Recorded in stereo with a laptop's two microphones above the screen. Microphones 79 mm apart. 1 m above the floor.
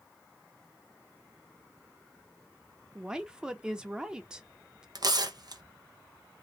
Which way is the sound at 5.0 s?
55° right (ahead or behind).